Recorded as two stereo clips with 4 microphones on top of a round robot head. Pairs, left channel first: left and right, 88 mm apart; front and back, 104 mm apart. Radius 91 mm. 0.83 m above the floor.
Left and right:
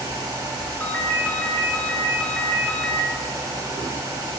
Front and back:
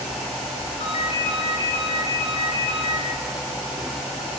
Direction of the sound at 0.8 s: 15° left.